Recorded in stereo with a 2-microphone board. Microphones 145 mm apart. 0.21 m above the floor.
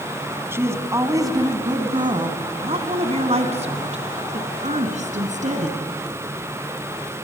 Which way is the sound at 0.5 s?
15° right (ahead or behind).